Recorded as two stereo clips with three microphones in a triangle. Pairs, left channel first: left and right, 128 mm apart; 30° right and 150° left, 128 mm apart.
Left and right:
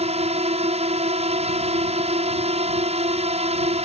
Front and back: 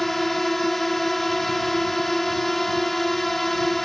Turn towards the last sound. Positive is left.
turn(degrees=-120)